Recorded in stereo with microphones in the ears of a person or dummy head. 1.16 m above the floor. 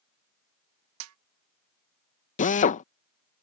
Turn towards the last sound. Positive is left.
turn(degrees=40)  # may be behind; listen again after turning